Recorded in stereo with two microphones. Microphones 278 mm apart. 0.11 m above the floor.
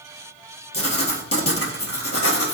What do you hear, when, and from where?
0.7 s writing: 55° left (ahead or behind), 0.8 m